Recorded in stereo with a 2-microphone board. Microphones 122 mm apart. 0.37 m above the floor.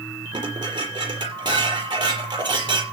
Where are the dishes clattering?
40° right (ahead or behind), 6 m.